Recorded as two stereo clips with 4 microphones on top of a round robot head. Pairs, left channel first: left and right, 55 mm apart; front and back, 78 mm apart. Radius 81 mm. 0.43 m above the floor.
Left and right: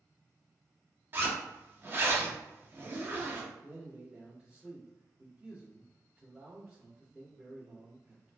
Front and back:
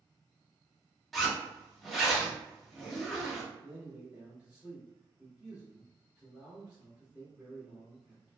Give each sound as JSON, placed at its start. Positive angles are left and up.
{"t": 1.1, "sound": "a zipper", "azimuth_deg": -85, "distance_m": 1.0}
{"t": 3.6, "sound": "a man speaking", "azimuth_deg": -125, "distance_m": 1.5}